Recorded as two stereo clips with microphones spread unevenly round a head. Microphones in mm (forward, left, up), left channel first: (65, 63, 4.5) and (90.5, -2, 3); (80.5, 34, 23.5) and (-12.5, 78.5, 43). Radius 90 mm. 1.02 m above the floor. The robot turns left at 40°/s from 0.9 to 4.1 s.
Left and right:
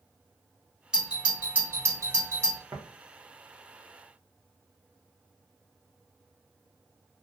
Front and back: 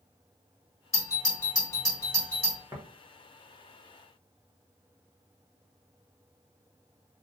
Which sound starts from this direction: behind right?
Tapping, at 2.7 s.